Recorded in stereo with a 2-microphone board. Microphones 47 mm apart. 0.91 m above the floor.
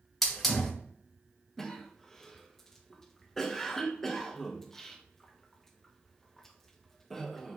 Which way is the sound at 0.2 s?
5° left (ahead or behind).